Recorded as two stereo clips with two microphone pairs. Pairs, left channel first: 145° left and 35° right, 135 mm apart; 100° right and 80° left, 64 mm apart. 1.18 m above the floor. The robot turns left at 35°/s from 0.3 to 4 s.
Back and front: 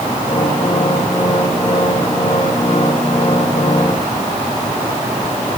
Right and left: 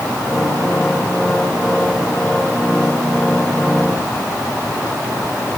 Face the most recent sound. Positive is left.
No sound to turn to.